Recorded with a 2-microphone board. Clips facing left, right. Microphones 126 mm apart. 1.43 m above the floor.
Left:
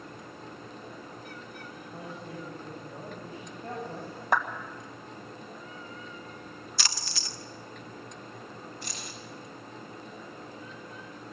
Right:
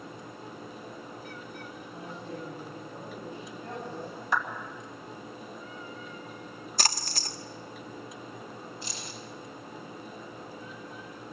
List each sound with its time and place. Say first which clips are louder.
1.9 s a woman speaking: right 1 dB; 40° left (ahead or behind), 10 m
4.3 s a clap: left 3 dB; 55° left (ahead or behind), 1.7 m
6.8 s a splash: right 6 dB; 45° right (ahead or behind), 0.9 m
8.8 s keys jangling: right 1 dB; 50° left (ahead or behind), 5 m